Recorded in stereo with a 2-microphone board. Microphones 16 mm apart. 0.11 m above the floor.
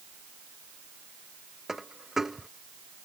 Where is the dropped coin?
20° right (ahead or behind).